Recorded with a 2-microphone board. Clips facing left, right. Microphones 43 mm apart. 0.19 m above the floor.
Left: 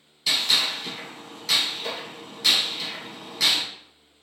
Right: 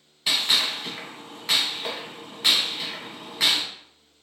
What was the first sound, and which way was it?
A gunshot, 25° right (ahead or behind).